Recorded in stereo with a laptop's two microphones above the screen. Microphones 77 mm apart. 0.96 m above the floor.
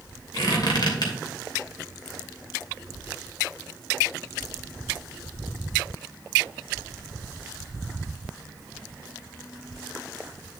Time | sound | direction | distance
0.3 | a squeak | 65° left (ahead or behind) | 2.5 m